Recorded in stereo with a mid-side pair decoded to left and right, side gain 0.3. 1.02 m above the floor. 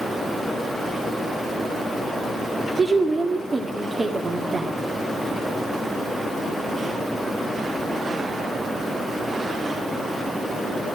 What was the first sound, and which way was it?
A woman speaking, 35° right.